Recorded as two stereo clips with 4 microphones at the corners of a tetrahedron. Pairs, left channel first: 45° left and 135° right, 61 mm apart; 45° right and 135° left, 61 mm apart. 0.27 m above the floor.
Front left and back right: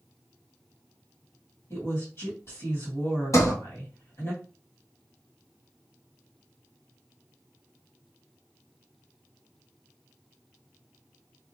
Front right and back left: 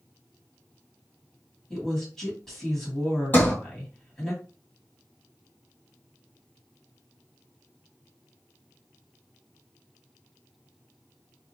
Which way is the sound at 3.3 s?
15° left.